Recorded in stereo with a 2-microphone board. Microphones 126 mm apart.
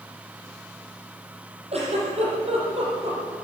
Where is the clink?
No clink in this recording.